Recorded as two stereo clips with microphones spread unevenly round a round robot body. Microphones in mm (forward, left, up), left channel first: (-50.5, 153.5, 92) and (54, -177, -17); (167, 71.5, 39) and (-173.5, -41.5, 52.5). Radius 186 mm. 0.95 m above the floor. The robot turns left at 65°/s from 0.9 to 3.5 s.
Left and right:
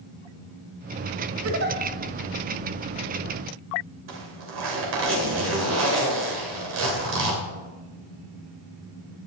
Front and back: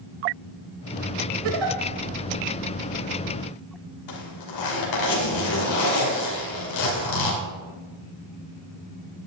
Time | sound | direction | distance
1.4 | a giggle | 130° right | 1.4 m
4.1 | a zipper | 15° right | 2.5 m